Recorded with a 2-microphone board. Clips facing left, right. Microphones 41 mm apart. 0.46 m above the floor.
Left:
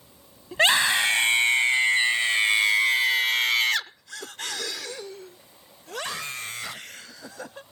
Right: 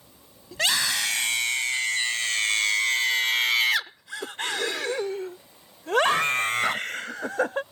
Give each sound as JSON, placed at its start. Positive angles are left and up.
{"t": 0.5, "sound": "a scream", "side_deg": 30}